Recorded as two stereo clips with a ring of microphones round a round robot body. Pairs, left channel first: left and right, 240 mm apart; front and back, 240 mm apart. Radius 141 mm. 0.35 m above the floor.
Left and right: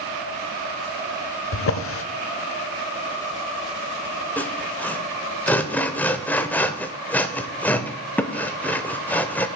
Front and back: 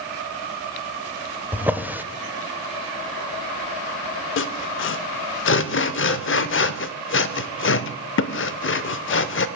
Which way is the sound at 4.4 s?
10° left.